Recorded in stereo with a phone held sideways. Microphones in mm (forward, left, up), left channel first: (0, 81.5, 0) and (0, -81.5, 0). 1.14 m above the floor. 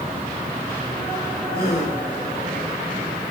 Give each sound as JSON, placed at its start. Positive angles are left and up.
{"t": 1.5, "sound": "a gasp", "side_deg": 75, "distance_m": 4.0}